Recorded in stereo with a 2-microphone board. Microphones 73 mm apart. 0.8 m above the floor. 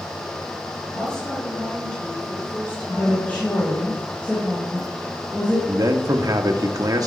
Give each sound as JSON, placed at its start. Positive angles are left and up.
{"t": 0.9, "sound": "a woman speaking", "side_deg": 5, "distance_m": 4.5}
{"t": 2.9, "sound": "a woman speaking", "side_deg": 20, "distance_m": 3.5}
{"t": 5.7, "sound": "a man speaking", "side_deg": -55, "distance_m": 1.3}